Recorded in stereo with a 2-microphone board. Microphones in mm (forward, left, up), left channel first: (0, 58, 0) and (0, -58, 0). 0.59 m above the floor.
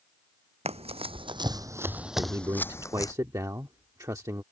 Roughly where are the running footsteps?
Right.